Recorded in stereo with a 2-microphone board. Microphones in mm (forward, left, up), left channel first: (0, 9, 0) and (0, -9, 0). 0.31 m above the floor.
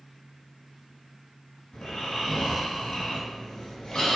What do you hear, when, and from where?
1.7 s snoring: 60° left (ahead or behind), 0.9 m